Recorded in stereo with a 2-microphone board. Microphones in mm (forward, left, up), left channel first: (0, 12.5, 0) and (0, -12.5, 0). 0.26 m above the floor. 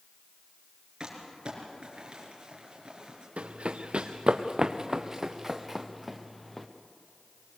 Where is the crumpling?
35° right (ahead or behind), 5 m.